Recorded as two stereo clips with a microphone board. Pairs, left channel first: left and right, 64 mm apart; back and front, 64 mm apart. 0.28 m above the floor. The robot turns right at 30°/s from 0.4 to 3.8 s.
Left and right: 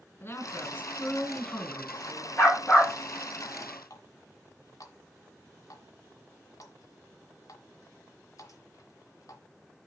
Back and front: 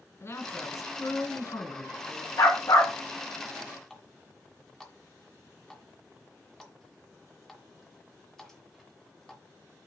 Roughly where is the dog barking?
Behind left.